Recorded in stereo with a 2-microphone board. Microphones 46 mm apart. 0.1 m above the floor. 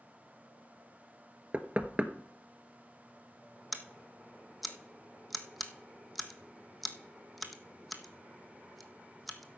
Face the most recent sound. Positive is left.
turn(degrees=0)  # may be behind; listen again after turning